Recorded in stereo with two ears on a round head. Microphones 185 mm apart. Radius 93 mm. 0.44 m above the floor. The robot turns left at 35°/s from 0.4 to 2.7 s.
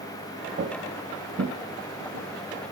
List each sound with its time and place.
0.6 s footsteps: 45° right (ahead or behind), 0.6 m; by 2.7 s 75° right (ahead or behind), 1.4 m